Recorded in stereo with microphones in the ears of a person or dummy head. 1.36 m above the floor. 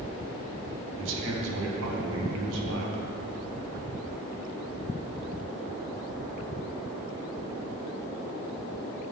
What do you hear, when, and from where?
1.0 s a man speaking: 70° right (ahead or behind), 1.4 m